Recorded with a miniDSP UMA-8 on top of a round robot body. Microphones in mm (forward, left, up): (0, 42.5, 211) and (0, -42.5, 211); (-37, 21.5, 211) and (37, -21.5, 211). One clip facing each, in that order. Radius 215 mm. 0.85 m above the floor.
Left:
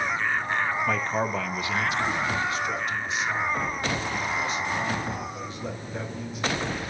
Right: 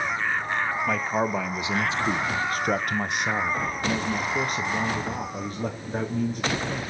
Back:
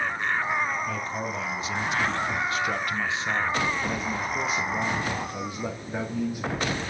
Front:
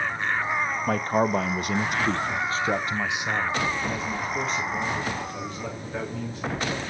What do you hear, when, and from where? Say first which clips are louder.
0.9 s a man speaking: right 1 dB, front 8 dB; straight ahead, 1.3 m; by 6.9 s 135° right, 3 m